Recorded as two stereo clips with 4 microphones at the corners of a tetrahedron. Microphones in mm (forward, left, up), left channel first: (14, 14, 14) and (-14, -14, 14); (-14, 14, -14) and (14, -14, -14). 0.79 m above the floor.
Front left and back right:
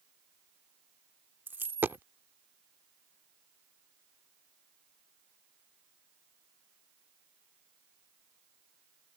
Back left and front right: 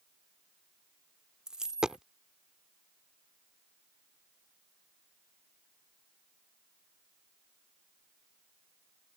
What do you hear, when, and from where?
1.5 s a dropped coin: 115° right